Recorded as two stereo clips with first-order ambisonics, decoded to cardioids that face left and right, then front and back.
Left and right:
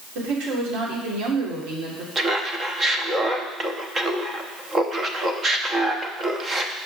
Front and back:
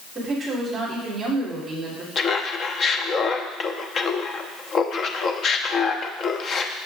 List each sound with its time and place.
0.1 s a woman speaking: 105° right, 2.5 m
2.1 s laughter: 35° right, 0.7 m